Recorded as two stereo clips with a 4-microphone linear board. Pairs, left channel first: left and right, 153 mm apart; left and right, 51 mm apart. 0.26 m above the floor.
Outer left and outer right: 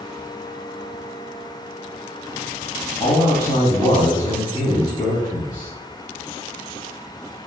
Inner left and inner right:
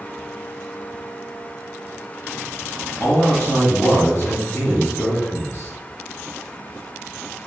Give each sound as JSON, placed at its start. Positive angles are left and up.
{"t": 3.0, "sound": "a man speaking", "side_deg": 25, "distance_m": 2.0}